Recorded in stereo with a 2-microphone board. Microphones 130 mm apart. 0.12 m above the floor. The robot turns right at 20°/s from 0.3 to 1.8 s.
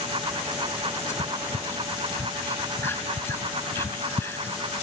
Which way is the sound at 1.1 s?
25° left (ahead or behind).